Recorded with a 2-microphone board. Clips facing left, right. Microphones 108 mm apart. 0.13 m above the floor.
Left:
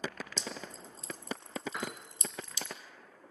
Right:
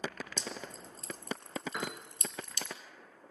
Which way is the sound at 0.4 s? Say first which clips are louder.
Even; 55° right (ahead or behind).